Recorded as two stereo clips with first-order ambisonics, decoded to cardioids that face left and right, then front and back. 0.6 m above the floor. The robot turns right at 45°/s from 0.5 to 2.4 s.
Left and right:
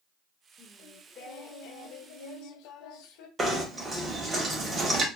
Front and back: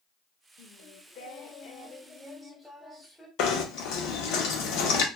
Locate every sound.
0.6 s singing: 10° left, 0.5 m; by 3.3 s 90° left, 0.5 m
3.4 s knocking: 20° right, 0.6 m